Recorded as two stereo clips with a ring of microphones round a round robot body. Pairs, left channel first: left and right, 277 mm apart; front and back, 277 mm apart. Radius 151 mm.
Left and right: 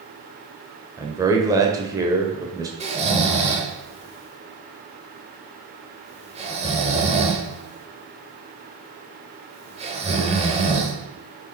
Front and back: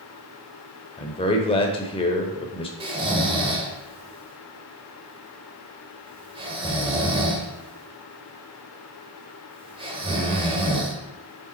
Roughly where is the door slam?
No door slam in this recording.